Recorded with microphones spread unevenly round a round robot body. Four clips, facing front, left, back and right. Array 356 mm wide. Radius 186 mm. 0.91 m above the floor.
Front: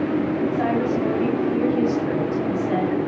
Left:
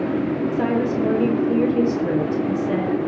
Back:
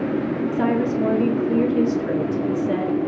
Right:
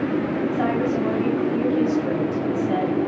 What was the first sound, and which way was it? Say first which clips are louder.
A woman speaking: left 1 dB, back 1 dB; 140° left.